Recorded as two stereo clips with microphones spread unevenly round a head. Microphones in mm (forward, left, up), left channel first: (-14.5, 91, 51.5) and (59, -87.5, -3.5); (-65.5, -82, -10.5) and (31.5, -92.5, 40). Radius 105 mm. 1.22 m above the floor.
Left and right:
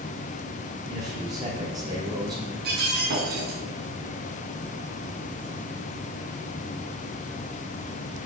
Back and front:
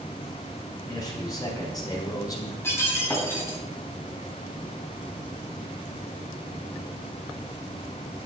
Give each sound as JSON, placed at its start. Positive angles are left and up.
{"t": 0.9, "sound": "a man speaking", "azimuth_deg": -140, "distance_m": 5.0}
{"t": 2.6, "sound": "breaking glass", "azimuth_deg": -115, "distance_m": 4.5}